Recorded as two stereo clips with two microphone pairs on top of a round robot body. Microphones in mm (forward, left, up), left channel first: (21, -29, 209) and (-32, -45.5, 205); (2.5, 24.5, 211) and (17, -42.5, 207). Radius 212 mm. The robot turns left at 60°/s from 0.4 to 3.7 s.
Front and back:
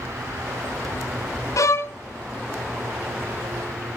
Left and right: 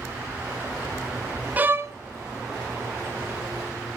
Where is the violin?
10° right, 0.6 m; by 1.9 s 35° right, 0.6 m.